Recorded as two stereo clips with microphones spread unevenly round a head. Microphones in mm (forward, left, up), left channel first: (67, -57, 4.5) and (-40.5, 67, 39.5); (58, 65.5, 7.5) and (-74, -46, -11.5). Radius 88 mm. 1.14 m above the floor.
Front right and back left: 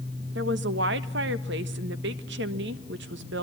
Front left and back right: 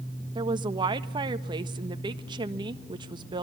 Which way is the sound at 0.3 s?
155° left.